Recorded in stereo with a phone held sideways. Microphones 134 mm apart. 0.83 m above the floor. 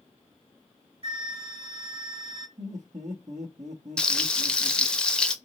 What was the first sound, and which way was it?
A flute, 45° right (ahead or behind).